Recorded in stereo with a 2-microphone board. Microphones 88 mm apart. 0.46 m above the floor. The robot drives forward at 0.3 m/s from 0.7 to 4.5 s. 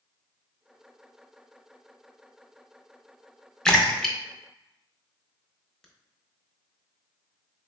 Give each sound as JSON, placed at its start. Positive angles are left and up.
{"t": 3.6, "sound": "a splash", "side_deg": 10, "distance_m": 0.6}